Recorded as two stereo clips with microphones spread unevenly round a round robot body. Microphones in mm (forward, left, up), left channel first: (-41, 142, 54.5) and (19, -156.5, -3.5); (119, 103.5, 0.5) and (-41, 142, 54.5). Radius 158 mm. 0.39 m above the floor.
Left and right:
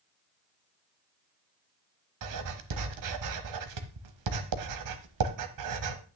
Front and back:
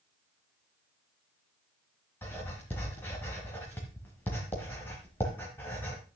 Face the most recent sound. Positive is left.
turn(degrees=-90)